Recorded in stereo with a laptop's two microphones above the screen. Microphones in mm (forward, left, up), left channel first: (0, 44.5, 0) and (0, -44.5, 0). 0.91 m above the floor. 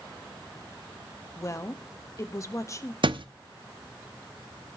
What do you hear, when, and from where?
1.4 s a woman speaking: 35° left (ahead or behind), 1.3 m
3.0 s a thud: 65° right (ahead or behind), 0.6 m